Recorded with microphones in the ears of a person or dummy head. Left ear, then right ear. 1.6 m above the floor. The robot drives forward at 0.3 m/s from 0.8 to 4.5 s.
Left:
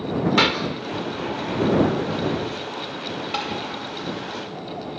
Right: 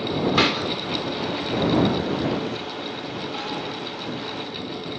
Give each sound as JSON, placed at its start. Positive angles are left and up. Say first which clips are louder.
{"t": 0.4, "sound": "a clap", "louder": "left 2 dB", "side_deg": -5, "distance_m": 1.7}
{"t": 3.3, "sound": "tapping", "louder": "left 6 dB", "side_deg": 55, "distance_m": 9.5}